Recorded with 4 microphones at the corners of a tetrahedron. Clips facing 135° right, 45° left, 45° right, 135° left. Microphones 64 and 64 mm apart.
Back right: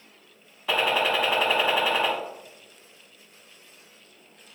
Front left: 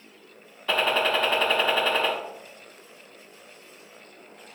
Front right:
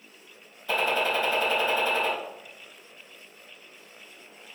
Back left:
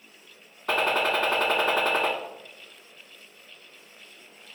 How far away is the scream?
No scream in this recording.